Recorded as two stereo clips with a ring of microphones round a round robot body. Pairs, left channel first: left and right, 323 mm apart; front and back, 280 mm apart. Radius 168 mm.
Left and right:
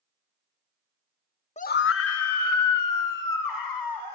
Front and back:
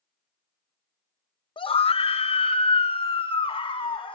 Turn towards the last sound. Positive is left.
turn(degrees=70)